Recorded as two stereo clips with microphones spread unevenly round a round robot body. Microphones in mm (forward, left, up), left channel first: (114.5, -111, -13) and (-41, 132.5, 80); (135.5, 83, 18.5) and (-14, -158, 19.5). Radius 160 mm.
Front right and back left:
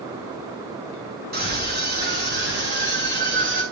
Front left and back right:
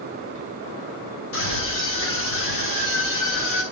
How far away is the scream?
About 7.5 m.